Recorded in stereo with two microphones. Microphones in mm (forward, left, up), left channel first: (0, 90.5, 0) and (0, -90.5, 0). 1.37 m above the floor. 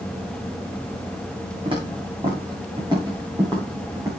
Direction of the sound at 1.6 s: 30° right (ahead or behind).